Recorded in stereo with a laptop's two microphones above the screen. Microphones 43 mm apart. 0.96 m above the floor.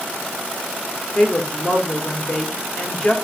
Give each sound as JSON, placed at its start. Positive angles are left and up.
{"t": 1.1, "sound": "a woman speaking", "side_deg": 20, "distance_m": 2.0}